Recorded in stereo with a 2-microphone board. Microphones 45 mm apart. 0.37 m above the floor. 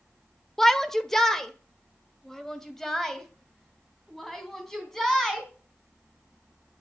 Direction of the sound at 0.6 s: 10° left (ahead or behind).